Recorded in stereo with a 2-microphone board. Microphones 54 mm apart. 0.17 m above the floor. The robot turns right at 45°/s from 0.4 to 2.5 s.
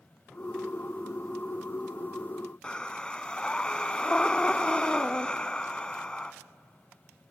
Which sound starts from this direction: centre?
Breathing, at 2.6 s.